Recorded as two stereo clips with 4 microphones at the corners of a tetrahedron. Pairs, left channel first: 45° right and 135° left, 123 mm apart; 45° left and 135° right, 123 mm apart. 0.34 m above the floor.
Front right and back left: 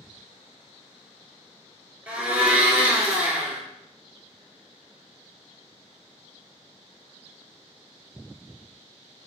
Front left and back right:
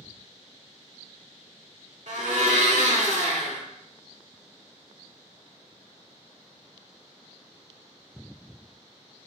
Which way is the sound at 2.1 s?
145° right.